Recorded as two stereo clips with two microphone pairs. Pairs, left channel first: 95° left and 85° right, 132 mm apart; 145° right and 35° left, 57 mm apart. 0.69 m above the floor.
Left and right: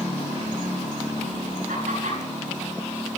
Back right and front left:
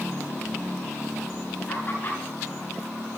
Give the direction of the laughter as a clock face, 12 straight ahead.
3 o'clock.